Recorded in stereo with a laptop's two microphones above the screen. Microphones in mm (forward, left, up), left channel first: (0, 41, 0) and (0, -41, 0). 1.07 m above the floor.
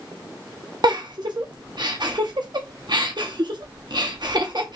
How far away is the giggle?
About 0.7 m.